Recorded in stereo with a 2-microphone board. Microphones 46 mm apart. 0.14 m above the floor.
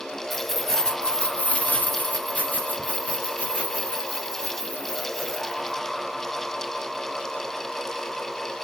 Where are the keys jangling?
Centre (ahead or behind), 1.4 m; by 5.8 s 25° left (ahead or behind), 4.5 m.